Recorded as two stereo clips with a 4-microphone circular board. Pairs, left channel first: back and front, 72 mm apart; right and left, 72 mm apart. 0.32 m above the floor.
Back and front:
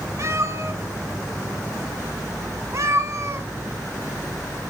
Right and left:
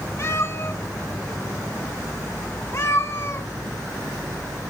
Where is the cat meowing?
45° right, 1.4 m.